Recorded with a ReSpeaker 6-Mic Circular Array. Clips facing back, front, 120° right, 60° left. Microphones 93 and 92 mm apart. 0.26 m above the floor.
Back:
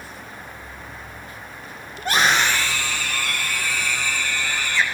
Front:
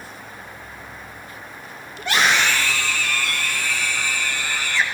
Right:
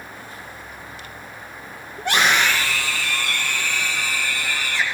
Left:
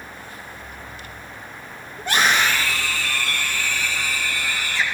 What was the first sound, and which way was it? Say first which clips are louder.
A scream: even, right 1 dB; 135° right.